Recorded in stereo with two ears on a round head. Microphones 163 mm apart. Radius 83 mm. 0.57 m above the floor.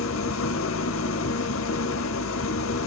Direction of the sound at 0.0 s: 80° left.